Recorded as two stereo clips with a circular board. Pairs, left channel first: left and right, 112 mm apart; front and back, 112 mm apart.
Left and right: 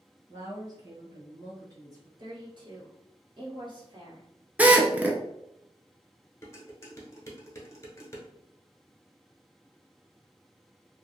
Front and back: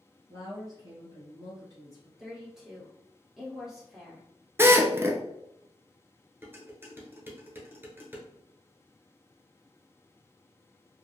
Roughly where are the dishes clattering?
Behind left.